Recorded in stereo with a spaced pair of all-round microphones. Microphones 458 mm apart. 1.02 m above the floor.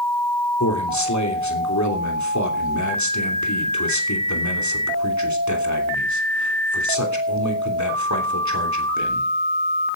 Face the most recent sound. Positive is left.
turn(degrees=35)  # may be behind; listen again after turning